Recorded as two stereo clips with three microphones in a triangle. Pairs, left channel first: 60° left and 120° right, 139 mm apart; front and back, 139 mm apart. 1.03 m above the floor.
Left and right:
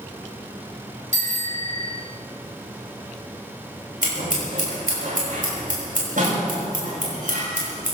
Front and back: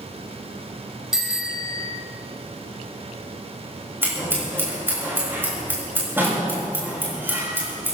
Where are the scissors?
105° right, 6.5 m.